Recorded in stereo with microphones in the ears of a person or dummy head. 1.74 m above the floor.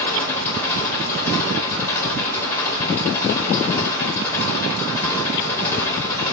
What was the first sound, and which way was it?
An engine running, 10° left (ahead or behind).